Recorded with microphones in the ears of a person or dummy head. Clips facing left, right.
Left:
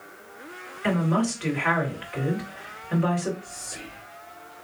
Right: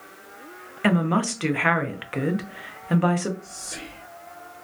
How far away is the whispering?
About 1.2 m.